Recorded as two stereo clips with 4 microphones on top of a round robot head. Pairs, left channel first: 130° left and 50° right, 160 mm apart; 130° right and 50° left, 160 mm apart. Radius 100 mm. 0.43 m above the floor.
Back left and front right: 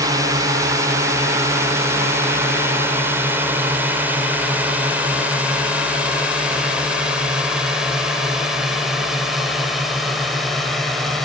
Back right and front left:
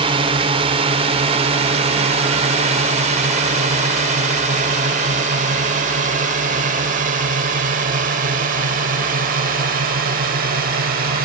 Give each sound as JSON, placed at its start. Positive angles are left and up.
{"t": 0.0, "sound": "a drone", "azimuth_deg": 10}